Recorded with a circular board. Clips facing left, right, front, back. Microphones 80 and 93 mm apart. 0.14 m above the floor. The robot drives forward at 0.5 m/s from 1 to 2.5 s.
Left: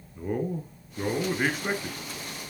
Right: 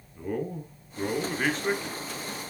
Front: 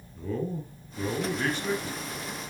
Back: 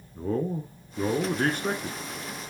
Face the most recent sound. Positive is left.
turn(degrees=170)